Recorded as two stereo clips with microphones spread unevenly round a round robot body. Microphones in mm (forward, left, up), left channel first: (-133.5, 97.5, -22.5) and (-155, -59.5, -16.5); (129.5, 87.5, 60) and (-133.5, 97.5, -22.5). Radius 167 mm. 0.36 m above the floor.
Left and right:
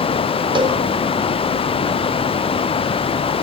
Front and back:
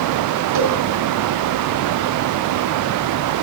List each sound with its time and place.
0.6 s a cowbell: 160° right, 1.6 m